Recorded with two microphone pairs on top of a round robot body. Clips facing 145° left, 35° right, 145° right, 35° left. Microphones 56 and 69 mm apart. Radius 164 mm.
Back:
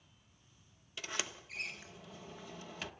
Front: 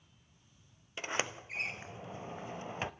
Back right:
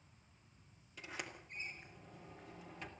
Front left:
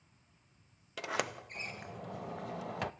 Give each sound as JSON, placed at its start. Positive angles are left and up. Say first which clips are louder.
{"t": 1.0, "sound": "a sliding door", "louder": "front 5 dB, front left 12 dB", "azimuth_deg": 25, "distance_m": 0.8}